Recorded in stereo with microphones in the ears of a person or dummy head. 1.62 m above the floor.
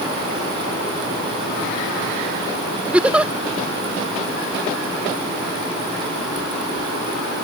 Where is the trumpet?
No trumpet in this recording.